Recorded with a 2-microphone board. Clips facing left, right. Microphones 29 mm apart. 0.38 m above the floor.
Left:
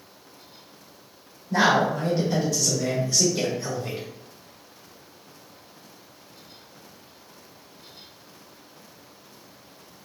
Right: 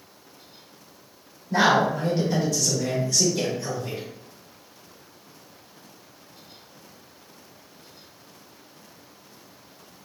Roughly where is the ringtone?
No ringtone in this recording.